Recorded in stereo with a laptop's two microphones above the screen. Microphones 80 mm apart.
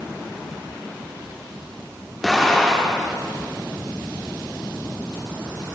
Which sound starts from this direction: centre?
An explosion, at 2.2 s.